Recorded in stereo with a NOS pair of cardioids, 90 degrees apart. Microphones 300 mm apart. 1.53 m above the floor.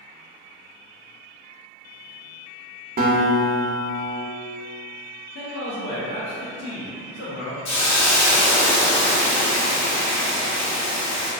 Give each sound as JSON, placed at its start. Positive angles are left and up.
{"t": 3.0, "sound": "a guitar", "azimuth_deg": -30, "distance_m": 0.6}
{"t": 5.3, "sound": "a man speaking", "azimuth_deg": 55, "distance_m": 0.8}
{"t": 7.7, "sound": "a hiss", "azimuth_deg": 65, "distance_m": 1.0}